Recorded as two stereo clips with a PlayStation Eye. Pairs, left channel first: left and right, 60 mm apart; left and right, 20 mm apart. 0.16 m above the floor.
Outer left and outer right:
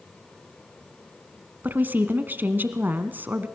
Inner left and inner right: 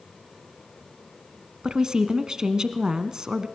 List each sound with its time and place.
1.6 s a woman speaking: 30° right (ahead or behind), 1.3 m